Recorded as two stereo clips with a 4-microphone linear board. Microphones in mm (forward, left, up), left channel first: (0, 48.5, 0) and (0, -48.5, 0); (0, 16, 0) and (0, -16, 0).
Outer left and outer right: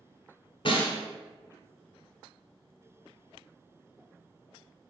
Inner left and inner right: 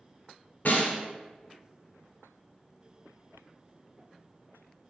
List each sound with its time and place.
0.7 s a snare drum: 65° left (ahead or behind), 1.0 m